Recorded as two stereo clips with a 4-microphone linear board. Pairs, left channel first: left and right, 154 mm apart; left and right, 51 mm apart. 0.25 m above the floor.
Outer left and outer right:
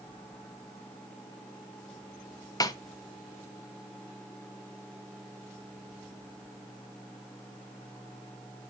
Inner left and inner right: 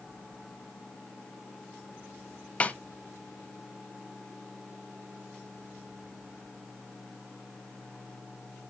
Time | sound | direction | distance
2.6 | a snare drum | 25° left (ahead or behind) | 0.7 m